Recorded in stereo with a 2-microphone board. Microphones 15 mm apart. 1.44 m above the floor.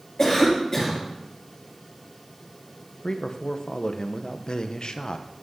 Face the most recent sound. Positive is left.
turn(degrees=55)  # may be behind; listen again after turning